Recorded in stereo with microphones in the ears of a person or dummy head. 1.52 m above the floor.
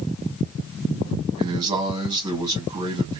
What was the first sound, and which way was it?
A man speaking, 15° right (ahead or behind).